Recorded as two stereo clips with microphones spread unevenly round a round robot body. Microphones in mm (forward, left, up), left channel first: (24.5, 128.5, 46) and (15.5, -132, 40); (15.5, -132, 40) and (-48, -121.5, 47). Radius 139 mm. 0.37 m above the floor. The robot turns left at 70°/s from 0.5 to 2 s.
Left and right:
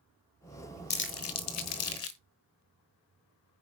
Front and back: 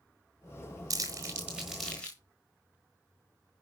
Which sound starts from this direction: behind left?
Crumpling, at 0.9 s.